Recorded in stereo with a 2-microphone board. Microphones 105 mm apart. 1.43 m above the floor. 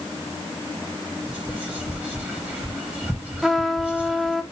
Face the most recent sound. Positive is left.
turn(degrees=0)  # may be behind; listen again after turning